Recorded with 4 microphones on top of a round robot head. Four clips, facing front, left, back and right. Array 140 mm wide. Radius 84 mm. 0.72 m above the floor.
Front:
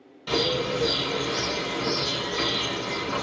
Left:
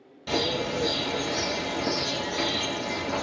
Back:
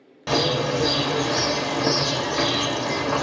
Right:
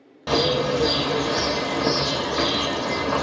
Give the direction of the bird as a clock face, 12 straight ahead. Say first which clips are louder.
Right 7 dB, back 4 dB; 4 o'clock.